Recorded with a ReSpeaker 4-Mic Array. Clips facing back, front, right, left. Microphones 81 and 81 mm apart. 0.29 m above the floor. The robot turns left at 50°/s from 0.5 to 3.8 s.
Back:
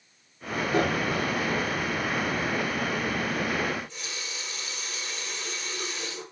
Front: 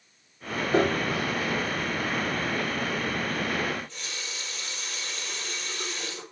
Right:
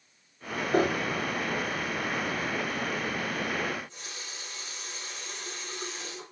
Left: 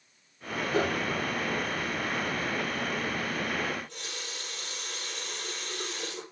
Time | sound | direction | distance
0.7 | a piano | 50° right | 3.5 m
3.7 | a running tap | 100° left | 5 m